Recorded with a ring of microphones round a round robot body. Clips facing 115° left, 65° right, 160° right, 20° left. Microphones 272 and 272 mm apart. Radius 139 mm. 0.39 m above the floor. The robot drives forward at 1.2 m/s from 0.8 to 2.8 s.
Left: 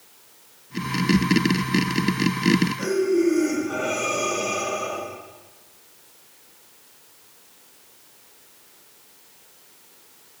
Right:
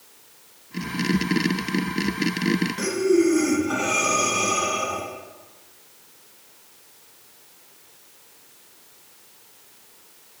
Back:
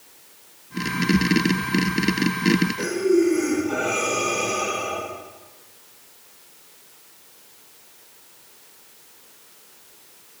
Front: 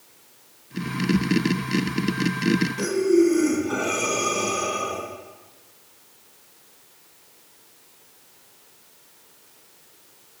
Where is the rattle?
No rattle in this recording.